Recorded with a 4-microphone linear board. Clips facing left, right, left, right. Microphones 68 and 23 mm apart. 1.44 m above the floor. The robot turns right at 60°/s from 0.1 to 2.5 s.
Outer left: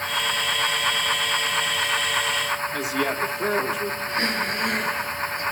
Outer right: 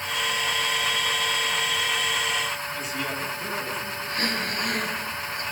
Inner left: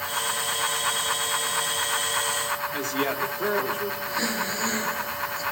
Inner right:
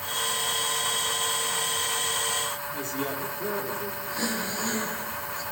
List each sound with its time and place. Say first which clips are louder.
2.7 s a woman speaking: outer left 6 dB, inner left 5 dB; 85° left, 3.5 m
4.1 s breathing: outer left 1 dB, inner left 2 dB; 20° left (ahead or behind), 5 m